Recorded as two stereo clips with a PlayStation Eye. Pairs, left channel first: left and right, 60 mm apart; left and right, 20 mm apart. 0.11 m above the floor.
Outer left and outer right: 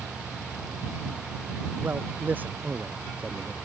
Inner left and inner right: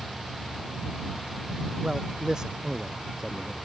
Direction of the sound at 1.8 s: 35° right (ahead or behind).